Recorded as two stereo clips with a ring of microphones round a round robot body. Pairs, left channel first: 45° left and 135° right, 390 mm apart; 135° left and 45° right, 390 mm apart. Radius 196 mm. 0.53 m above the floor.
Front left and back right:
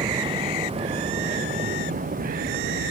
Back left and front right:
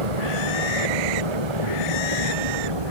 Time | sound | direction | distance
0.0 | a vehicle | 55° right | ?